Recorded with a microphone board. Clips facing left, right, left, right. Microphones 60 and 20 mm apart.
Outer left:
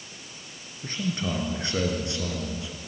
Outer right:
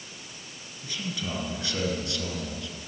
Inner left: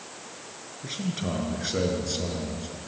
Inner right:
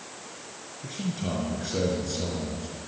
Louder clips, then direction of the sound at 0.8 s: Outer left 5 dB, inner left 1 dB; 40° left (ahead or behind).